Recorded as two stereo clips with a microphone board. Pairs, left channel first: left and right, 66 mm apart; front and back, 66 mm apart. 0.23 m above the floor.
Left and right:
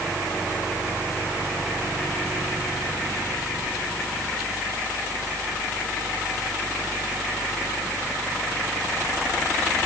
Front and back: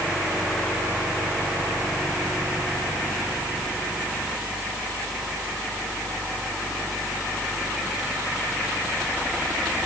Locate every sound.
Only background noise.